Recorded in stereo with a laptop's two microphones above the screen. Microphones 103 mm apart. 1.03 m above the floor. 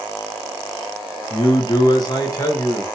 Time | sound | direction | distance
1.3 | a man speaking | 50° left (ahead or behind) | 0.5 m